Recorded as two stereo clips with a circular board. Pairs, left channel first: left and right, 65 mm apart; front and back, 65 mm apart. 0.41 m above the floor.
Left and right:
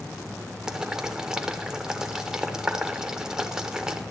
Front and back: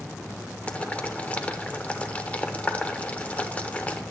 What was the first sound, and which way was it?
Boiling, 25° right.